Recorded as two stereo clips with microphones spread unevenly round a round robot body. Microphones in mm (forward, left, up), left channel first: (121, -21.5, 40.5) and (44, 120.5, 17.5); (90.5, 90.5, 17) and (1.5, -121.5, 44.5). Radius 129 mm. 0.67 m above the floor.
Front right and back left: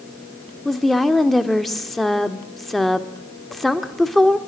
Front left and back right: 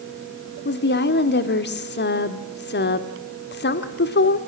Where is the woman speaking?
30° left, 1.6 m.